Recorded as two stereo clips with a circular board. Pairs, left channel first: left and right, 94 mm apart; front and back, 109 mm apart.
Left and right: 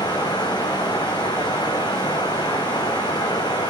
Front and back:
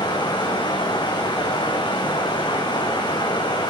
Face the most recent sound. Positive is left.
turn(degrees=50)